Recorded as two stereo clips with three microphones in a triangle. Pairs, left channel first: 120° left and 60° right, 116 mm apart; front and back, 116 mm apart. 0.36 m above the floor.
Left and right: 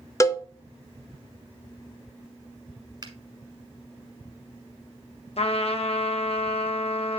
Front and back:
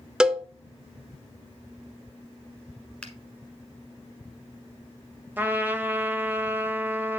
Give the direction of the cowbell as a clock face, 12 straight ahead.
9 o'clock.